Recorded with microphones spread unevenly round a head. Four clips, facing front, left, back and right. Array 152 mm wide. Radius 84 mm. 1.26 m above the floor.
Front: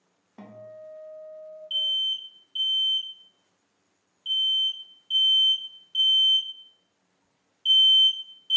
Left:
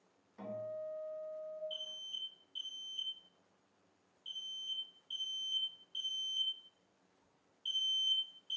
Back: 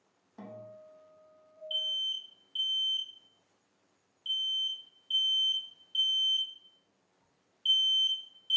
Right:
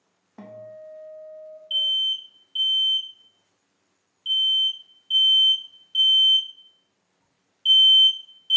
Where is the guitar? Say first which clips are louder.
Right 2 dB, front 4 dB; 65° right, 0.7 m.